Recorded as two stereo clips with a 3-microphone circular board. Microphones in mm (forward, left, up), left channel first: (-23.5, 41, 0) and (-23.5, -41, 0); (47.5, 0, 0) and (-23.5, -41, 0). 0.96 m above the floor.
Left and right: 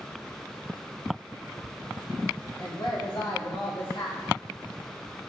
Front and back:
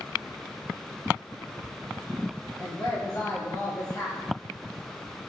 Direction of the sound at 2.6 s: 75° left.